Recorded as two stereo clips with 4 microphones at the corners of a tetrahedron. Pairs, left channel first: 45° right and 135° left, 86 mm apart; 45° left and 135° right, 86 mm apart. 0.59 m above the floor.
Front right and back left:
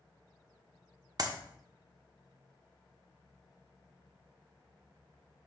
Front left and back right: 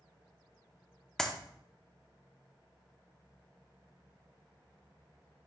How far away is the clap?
About 1.0 m.